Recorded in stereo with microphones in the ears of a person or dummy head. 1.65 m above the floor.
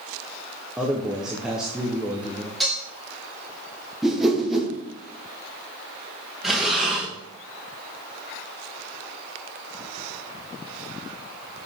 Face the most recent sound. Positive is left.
turn(degrees=-5)  # may be behind; listen again after turning